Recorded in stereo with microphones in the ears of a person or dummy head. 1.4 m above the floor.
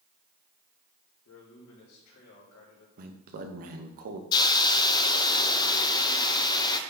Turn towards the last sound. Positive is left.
turn(degrees=25)  # may be behind; listen again after turning